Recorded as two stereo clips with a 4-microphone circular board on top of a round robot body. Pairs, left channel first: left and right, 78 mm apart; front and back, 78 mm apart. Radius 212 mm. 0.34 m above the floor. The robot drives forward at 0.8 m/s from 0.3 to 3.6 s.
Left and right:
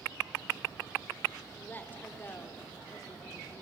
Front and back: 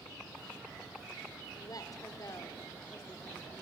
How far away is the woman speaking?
About 2.5 m.